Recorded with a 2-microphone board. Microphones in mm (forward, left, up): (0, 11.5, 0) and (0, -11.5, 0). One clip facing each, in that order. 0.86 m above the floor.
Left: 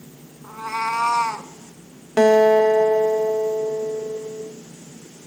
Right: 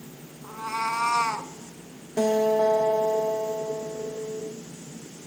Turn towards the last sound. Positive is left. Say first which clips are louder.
# left 8 dB
turn(degrees=55)  # may be behind; listen again after turning